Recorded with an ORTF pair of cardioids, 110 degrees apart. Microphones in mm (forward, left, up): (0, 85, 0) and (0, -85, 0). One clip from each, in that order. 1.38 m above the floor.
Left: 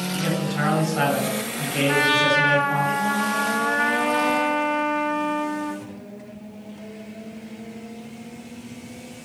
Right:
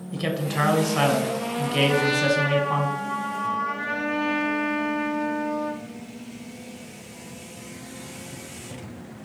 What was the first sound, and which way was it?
A man speaking, 30° right.